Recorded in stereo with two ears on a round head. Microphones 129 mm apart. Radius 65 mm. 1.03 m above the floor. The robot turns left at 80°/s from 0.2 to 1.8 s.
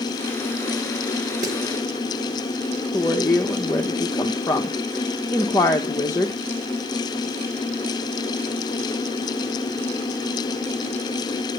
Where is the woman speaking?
20° left (ahead or behind), 1.0 m.